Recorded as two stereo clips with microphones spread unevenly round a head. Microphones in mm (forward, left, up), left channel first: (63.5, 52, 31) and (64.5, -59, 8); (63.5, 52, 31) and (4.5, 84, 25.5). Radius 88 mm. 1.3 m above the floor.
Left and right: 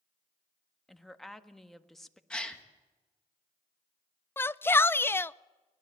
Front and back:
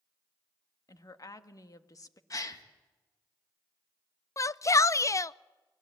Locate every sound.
0.9 s a woman speaking: 5° left, 1.6 m
2.3 s a gasp: 5° left, 2 m
4.4 s a shout: 20° left, 0.7 m